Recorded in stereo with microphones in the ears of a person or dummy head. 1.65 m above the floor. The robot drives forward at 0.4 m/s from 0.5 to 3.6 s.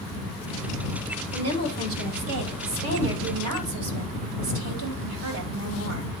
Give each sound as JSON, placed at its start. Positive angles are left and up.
{"t": 1.3, "sound": "a woman speaking", "side_deg": -55, "distance_m": 2.5}